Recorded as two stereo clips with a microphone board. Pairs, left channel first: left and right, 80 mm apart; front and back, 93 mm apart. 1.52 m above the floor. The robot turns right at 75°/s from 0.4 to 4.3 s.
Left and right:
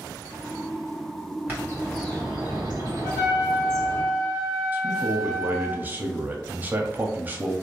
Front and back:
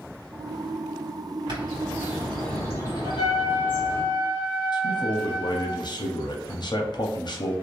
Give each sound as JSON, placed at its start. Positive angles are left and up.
{"t": 1.5, "sound": "a bird", "azimuth_deg": -155, "distance_m": 1.3}
{"t": 3.0, "sound": "a trumpet", "azimuth_deg": 0, "distance_m": 1.9}
{"t": 4.7, "sound": "a man speaking", "azimuth_deg": -25, "distance_m": 0.6}